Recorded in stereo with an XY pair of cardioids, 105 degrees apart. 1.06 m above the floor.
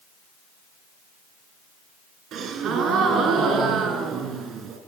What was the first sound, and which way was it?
A gasp, 70° right.